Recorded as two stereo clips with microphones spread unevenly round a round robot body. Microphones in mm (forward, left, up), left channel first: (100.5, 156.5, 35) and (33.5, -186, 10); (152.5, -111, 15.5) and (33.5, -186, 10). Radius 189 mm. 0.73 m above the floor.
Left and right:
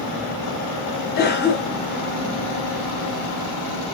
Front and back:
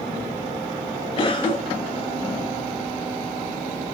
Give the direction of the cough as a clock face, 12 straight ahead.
11 o'clock.